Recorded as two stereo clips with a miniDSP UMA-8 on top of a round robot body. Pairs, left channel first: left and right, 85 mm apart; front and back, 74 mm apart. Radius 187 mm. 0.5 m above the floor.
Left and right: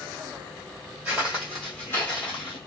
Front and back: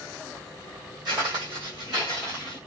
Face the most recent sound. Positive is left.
turn(degrees=95)